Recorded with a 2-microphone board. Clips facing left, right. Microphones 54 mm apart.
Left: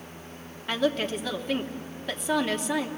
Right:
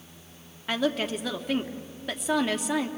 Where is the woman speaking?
Centre (ahead or behind), 1.2 m.